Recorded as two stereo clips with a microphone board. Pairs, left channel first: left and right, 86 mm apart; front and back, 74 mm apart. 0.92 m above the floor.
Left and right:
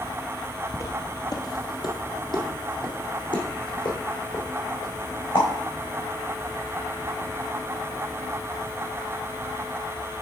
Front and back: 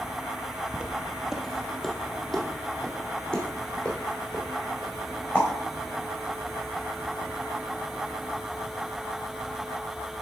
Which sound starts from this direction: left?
Footsteps, at 0.7 s.